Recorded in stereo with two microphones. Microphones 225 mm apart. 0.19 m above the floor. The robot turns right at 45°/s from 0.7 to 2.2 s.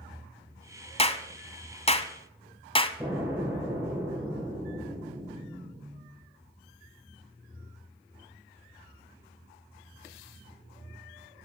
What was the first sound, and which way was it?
A clap, 25° left (ahead or behind).